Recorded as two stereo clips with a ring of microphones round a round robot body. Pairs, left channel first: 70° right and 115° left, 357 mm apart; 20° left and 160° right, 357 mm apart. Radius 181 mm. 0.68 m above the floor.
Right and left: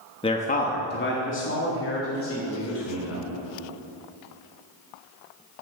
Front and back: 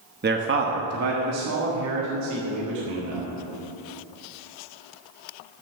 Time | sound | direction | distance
0.2 | a man speaking | 130° right | 1.1 m